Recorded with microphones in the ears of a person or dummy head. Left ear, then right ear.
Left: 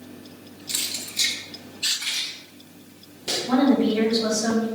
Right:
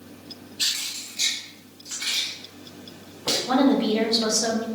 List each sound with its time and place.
0.7 s keys jangling: 40° left (ahead or behind), 1.9 m; by 3.4 s 45° right (ahead or behind), 4 m
3.5 s a woman speaking: 55° right (ahead or behind), 2 m